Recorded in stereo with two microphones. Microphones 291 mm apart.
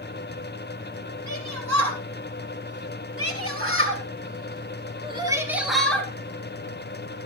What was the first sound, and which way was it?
A shout, 70° right (ahead or behind).